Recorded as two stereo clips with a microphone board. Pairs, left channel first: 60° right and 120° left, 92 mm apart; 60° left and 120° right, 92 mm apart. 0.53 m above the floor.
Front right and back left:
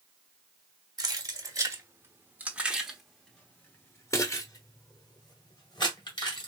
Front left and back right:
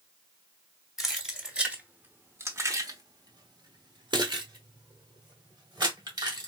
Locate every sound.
1.0 s keys jangling: 155° left, 1.4 m; by 6.5 s 85° right, 2 m